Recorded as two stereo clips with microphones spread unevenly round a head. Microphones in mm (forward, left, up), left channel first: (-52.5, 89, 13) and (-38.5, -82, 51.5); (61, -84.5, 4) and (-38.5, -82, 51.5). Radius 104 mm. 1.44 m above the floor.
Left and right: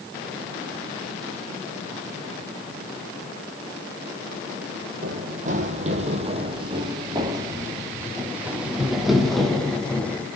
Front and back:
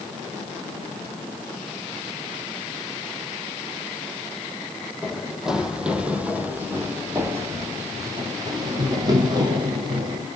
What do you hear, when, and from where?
5.0 s running footsteps: 110° right, 3 m; by 10.3 s straight behind, 3 m